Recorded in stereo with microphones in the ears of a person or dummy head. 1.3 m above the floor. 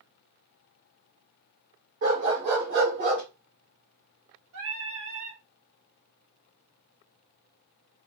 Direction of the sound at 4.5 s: 75° right (ahead or behind).